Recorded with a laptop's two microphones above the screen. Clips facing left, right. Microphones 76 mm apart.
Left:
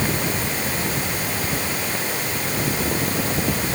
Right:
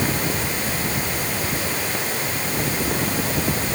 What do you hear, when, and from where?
Only background noise.